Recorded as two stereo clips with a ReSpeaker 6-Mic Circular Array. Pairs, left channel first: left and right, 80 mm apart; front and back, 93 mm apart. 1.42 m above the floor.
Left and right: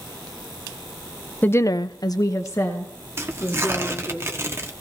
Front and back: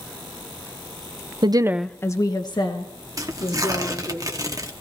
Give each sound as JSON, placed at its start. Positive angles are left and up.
{"t": 1.4, "sound": "a woman speaking", "azimuth_deg": 155, "distance_m": 0.7}
{"t": 3.2, "sound": "tearing paper", "azimuth_deg": -140, "distance_m": 1.3}